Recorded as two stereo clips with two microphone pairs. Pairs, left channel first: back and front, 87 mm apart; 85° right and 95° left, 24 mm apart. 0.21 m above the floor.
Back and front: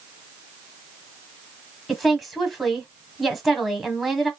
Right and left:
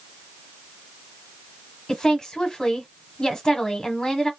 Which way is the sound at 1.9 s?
95° right.